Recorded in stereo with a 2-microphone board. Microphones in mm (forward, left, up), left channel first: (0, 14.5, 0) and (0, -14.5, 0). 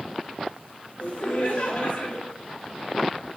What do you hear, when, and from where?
1.0 s laughter: 55° left (ahead or behind), 1.7 m